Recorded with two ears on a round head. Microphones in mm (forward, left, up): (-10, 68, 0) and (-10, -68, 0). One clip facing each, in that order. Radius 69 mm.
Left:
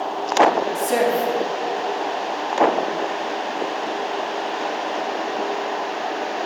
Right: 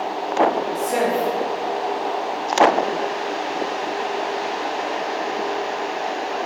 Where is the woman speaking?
35° left (ahead or behind), 3.5 m.